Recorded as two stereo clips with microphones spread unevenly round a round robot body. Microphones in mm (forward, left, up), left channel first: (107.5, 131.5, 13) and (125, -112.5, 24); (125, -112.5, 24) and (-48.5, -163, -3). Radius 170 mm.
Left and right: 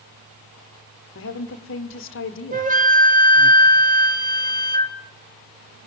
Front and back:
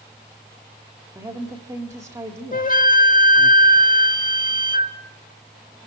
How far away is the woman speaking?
About 1.7 m.